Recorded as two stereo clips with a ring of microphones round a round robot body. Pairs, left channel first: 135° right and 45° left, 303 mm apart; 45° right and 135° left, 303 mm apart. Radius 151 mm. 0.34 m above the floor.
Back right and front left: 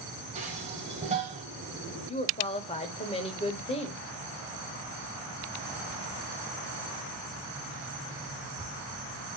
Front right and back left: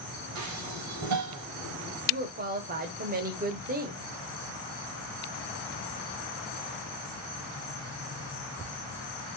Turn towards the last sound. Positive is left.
turn(degrees=170)